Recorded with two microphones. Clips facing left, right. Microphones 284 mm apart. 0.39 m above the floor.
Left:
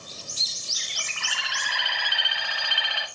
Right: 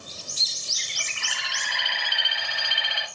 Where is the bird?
25° right (ahead or behind), 1.7 m.